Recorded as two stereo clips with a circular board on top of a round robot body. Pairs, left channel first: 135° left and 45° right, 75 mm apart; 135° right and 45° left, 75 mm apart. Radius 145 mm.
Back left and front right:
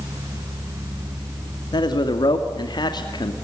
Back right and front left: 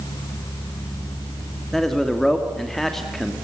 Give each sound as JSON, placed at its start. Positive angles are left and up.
{"t": 1.7, "sound": "a man speaking", "azimuth_deg": 140, "distance_m": 2.5}